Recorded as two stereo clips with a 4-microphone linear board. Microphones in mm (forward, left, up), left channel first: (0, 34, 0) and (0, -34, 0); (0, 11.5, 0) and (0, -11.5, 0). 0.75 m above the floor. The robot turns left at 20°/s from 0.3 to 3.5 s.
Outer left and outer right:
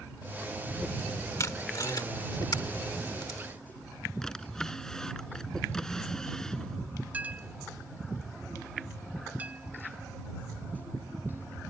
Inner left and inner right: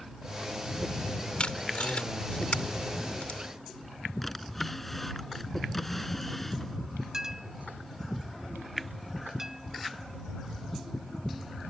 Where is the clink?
25° right (ahead or behind).